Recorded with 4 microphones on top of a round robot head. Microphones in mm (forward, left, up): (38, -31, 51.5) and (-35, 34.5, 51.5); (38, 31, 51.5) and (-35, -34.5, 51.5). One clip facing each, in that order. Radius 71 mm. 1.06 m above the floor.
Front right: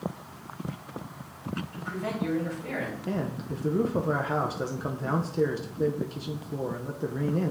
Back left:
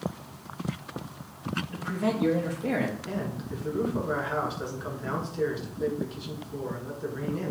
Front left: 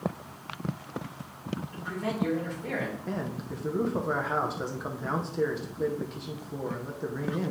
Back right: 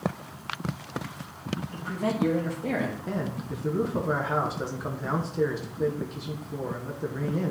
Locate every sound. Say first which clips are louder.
1.7 s a man speaking: back left 7 dB, back right 5 dB; 175° left, 1.3 m
3.1 s a man speaking: front right 2 dB, back right 2 dB; 50° right, 0.7 m